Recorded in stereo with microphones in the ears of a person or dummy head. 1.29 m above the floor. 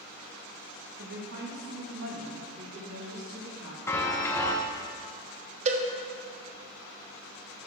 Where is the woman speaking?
55° right (ahead or behind), 1.4 m; by 3.8 s 75° right (ahead or behind), 3.5 m.